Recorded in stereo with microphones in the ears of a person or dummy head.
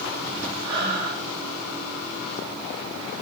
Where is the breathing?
60° right (ahead or behind), 5.5 m.